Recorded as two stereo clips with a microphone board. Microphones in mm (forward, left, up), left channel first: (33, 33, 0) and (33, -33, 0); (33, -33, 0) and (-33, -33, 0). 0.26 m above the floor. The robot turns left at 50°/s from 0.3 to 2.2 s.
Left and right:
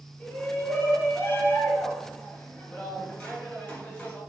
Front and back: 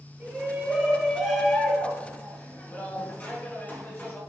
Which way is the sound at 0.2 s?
125° left.